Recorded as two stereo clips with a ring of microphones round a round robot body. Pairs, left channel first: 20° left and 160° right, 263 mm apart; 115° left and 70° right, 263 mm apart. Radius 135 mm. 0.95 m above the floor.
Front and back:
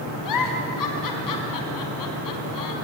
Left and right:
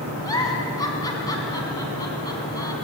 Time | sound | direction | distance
0.2 | a giggle | 35° left | 4 m